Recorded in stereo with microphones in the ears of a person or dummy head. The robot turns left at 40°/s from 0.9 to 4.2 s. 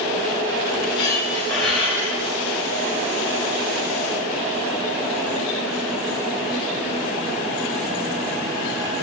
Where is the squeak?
25° left, 6 m; by 2.3 s 30° right, 6 m.